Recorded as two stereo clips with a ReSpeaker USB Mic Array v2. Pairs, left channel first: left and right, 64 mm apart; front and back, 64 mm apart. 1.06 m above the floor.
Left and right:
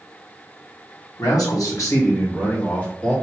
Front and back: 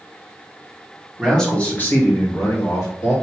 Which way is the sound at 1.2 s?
85° left.